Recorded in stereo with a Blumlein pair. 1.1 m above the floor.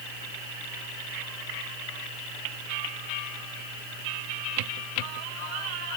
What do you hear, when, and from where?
Only background noise.